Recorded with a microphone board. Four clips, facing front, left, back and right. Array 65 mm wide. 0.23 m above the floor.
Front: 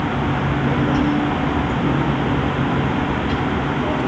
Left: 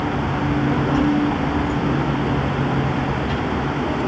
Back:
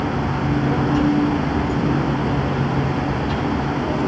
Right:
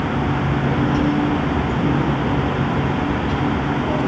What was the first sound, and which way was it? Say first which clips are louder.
A child speaking: even, even; 35° right.